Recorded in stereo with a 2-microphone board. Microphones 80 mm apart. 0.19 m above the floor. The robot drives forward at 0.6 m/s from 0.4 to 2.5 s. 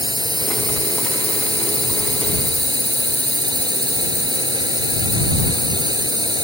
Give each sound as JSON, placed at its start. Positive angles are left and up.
{"t": 0.0, "sound": "a drone", "side_deg": -60}